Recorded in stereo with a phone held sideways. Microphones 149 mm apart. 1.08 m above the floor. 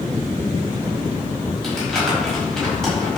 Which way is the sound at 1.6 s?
5° left (ahead or behind).